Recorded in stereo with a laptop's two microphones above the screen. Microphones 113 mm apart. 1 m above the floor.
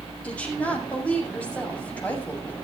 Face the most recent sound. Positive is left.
turn(degrees=10)  # may be behind; listen again after turning